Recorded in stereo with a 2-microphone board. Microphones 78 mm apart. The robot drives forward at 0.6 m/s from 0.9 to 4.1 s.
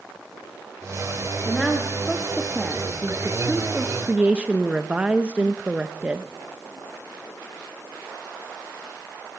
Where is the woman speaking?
5° right (ahead or behind), 2 m; by 6.2 s 20° right (ahead or behind), 0.7 m.